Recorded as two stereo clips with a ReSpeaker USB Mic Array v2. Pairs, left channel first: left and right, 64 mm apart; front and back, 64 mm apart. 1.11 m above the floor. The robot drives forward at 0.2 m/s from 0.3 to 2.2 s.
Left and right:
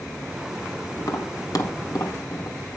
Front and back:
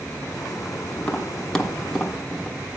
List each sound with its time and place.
1.0 s tapping: 75° left, 0.8 m; by 2.6 s 95° left, 0.8 m